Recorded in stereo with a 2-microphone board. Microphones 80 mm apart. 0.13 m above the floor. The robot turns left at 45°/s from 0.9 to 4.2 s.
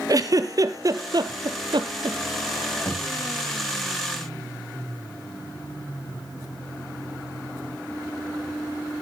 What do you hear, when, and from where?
0.1 s a giggle: 45° right (ahead or behind), 1.0 m; by 2.2 s 65° right (ahead or behind), 1.0 m
2.9 s knocking: 30° left (ahead or behind), 3 m; by 3.1 s 40° left (ahead or behind), 3 m